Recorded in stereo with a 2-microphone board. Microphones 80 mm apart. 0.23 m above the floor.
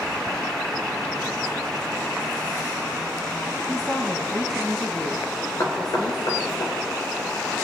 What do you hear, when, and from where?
3.7 s a woman speaking: 25° left (ahead or behind), 1.1 m; by 6.6 s 75° left (ahead or behind), 3.5 m
5.6 s knocking: 60° left (ahead or behind), 2 m